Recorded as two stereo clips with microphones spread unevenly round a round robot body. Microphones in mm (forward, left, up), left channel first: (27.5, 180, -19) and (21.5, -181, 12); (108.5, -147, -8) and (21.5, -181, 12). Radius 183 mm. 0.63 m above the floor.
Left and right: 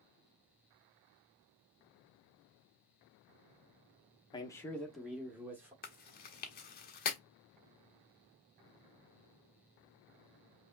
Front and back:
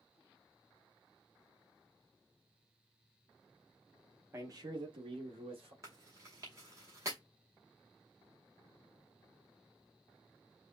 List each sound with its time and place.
4.3 s a man speaking: 140° left, 0.5 m; by 5.7 s 175° right, 1.3 m
5.8 s chewing: 135° left, 0.7 m